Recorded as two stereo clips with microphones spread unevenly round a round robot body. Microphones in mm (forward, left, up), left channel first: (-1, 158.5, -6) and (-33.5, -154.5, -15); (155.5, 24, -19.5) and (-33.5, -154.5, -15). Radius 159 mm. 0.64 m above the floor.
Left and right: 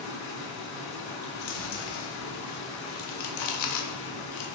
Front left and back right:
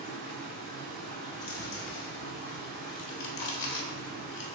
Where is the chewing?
70° left, 0.7 m.